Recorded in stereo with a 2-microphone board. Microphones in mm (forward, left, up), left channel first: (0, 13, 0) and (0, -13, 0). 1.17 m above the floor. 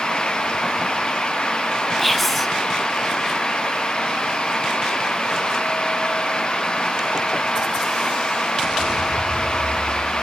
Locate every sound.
2.0 s whispering: 5° left (ahead or behind), 1.3 m